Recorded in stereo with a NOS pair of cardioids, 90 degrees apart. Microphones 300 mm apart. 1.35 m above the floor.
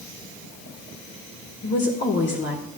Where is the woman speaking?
40° left, 1.7 m.